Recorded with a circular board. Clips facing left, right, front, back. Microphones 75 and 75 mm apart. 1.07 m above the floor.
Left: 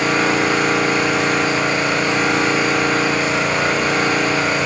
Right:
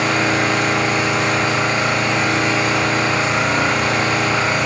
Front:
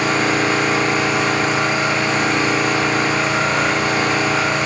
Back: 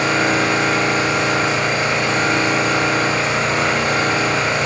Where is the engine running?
85° right, 1.4 m.